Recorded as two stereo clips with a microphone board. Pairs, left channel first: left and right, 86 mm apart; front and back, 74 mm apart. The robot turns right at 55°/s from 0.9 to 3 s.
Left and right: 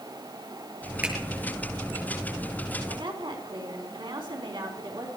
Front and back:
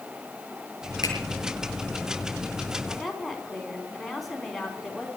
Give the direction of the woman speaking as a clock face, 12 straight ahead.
3 o'clock.